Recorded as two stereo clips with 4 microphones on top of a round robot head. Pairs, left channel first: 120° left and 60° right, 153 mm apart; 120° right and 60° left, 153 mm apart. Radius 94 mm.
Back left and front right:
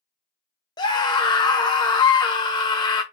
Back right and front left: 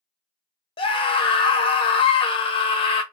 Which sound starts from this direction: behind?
A scream, at 0.8 s.